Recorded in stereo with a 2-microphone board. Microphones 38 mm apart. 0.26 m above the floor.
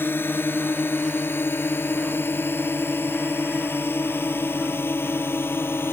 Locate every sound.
0.0 s a drone: 65° left (ahead or behind); by 5.9 s 75° left (ahead or behind)